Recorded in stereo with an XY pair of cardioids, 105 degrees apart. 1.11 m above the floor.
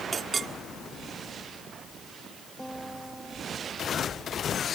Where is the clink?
35° right.